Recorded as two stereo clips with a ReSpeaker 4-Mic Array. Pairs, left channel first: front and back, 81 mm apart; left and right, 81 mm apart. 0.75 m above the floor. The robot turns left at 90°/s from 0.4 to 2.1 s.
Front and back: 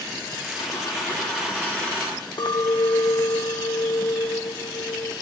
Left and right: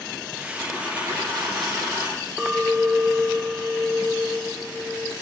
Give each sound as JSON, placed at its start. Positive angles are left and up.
{"t": 0.6, "sound": "a dropped coin", "azimuth_deg": -15, "distance_m": 7.5}
{"t": 2.4, "sound": "a clink", "azimuth_deg": -10, "distance_m": 0.9}